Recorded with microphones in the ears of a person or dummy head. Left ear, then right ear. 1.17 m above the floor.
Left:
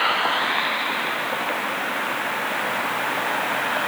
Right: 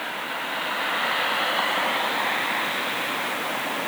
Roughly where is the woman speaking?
I don't hear a woman speaking.